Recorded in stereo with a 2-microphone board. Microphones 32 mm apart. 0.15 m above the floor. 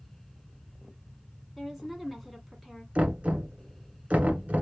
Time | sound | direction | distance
1.6 | a woman speaking | centre (ahead or behind) | 1.6 m
3.0 | knocking | 45° right (ahead or behind) | 1.4 m